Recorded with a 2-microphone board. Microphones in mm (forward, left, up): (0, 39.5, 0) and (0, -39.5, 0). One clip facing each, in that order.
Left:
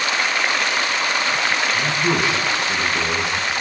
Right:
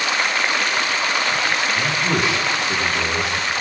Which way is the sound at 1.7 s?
30° left (ahead or behind).